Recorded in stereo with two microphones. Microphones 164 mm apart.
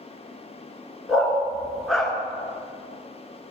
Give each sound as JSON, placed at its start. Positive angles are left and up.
{"t": 1.1, "sound": "a dog barking", "side_deg": 0, "distance_m": 1.4}